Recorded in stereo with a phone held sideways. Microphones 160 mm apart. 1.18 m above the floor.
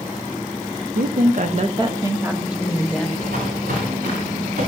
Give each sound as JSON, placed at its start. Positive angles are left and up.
{"t": 0.9, "sound": "a woman speaking", "side_deg": -80, "distance_m": 1.1}
{"t": 3.2, "sound": "footsteps", "side_deg": -75, "distance_m": 7.0}